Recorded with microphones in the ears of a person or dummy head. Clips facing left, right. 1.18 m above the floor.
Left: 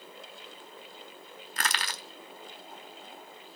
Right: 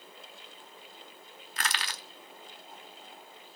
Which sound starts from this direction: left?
Crushing, at 1.6 s.